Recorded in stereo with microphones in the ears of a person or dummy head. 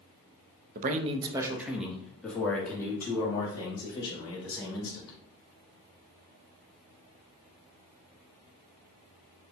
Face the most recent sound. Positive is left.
turn(degrees=20)  # may be behind; listen again after turning